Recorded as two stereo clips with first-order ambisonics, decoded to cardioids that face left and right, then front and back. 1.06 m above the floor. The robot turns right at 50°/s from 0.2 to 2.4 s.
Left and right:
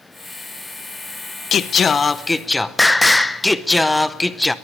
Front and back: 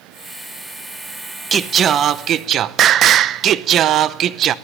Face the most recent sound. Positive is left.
turn(degrees=170)